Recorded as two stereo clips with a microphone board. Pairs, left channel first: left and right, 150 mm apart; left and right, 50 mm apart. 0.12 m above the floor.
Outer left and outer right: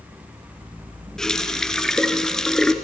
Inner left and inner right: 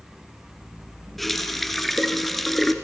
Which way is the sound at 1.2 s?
5° left (ahead or behind).